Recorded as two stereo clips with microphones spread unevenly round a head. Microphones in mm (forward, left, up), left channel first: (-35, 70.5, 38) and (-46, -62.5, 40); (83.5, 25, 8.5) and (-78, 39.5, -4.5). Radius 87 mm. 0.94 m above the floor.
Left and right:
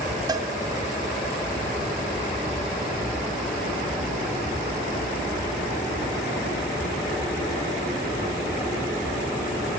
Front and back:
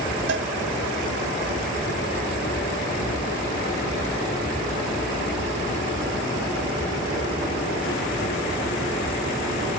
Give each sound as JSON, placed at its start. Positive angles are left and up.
{"t": 0.3, "sound": "a cowbell", "azimuth_deg": -155, "distance_m": 1.6}